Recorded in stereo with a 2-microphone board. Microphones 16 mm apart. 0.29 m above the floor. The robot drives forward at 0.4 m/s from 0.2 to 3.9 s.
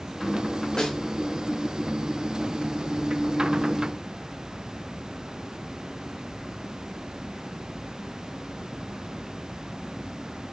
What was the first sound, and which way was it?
A snare drum, 40° left (ahead or behind).